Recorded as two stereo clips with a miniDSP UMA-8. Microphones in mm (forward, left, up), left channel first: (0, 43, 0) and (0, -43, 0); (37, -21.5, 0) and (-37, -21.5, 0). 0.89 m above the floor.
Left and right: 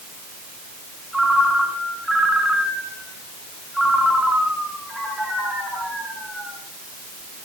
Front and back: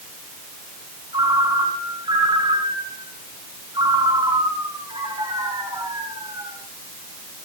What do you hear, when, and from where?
1.1 s a ringtone: 175° right, 4 m